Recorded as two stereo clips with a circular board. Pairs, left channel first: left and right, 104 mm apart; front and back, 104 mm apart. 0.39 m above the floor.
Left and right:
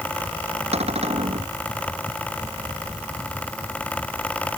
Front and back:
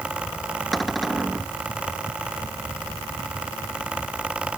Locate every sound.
0.7 s a cupboard door: 90° right